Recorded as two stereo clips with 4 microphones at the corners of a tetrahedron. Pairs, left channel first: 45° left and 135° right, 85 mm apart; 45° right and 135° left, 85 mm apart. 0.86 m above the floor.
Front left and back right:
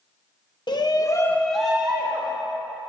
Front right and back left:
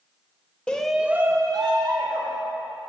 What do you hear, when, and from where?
0.7 s a shout: 30° left, 0.8 m; by 2.4 s 160° left, 1.3 m